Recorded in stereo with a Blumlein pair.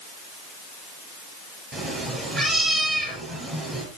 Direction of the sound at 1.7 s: 20° right.